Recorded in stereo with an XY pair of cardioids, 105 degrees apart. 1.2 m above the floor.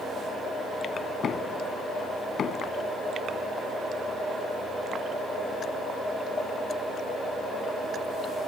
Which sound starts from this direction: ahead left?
Knocking, at 1.2 s.